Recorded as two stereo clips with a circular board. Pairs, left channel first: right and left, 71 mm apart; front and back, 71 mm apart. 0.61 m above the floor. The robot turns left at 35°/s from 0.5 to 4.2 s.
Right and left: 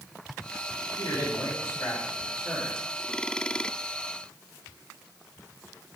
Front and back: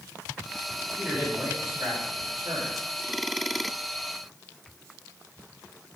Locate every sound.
1.0 s a man speaking: 105° right, 4.5 m; by 2.8 s 170° right, 4.5 m